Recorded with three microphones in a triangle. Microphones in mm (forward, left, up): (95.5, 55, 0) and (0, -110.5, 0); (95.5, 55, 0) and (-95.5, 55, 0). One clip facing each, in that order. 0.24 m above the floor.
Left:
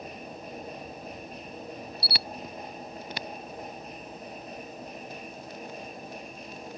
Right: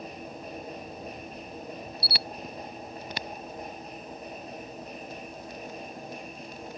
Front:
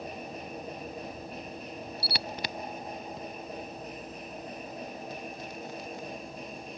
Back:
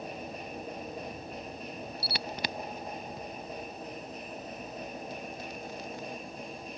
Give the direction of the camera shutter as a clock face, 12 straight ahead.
9 o'clock.